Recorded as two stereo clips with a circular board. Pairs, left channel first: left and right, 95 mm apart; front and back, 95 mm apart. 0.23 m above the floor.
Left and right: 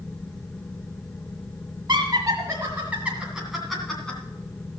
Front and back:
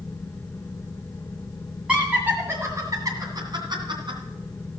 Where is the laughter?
105° right, 1.9 m; by 4.2 s 170° left, 2.5 m.